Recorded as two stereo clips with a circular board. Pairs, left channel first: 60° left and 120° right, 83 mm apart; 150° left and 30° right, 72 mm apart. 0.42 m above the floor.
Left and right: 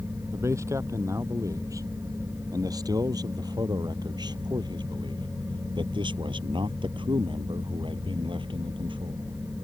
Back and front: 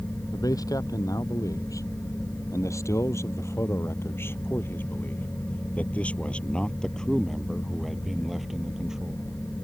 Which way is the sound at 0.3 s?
175° right.